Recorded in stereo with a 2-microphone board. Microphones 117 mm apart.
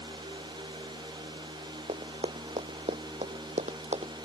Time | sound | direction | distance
1.9 | running footsteps | 65° right (ahead or behind) | ?